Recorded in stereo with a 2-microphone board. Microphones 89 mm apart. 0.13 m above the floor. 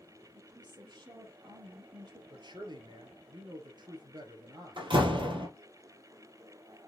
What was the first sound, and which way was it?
A woman speaking, 50° right (ahead or behind).